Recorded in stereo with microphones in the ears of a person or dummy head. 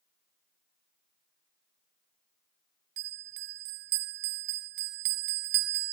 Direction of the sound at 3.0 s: 55° right (ahead or behind).